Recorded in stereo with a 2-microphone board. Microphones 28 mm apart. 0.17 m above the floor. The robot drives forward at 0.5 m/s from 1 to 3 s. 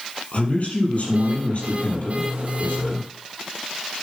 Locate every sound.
0.3 s a man speaking: 60° left (ahead or behind), 5 m; by 3.1 s 55° left (ahead or behind), 5.5 m